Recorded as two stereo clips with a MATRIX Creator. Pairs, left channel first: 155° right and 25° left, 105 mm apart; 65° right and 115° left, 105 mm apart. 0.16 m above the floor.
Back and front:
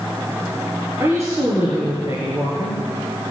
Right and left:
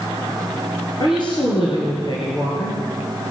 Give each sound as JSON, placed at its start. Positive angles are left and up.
{"t": 1.0, "sound": "a woman speaking", "azimuth_deg": -35, "distance_m": 3.0}